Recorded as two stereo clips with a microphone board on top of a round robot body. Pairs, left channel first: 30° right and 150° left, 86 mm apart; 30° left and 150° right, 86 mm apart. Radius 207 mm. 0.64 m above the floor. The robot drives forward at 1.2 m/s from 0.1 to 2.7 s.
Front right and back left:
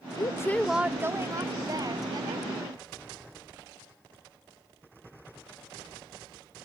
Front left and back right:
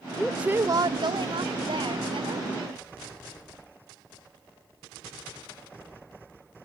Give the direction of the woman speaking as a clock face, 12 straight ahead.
2 o'clock.